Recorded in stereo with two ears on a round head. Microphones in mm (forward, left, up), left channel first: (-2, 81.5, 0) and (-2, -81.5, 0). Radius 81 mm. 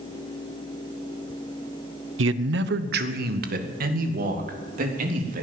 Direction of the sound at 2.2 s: 70° right (ahead or behind).